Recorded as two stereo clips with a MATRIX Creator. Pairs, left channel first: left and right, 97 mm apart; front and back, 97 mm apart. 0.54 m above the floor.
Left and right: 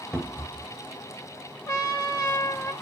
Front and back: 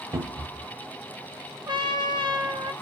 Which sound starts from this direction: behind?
A cupboard door, at 0.1 s.